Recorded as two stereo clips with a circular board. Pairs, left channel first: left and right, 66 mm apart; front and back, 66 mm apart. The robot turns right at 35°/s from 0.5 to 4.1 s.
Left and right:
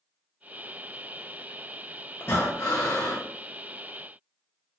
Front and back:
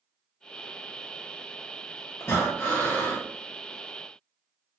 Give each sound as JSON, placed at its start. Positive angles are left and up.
{"t": 2.2, "sound": "breathing", "azimuth_deg": 45, "distance_m": 1.9}